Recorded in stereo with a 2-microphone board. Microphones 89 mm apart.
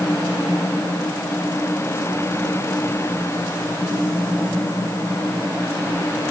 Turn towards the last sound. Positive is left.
No sound to turn to.